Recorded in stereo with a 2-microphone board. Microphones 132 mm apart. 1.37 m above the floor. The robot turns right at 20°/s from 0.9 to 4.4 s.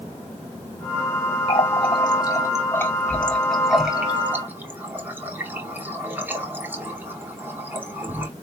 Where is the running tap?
45° left (ahead or behind), 2.5 m; by 8.3 s 15° right (ahead or behind), 2.5 m.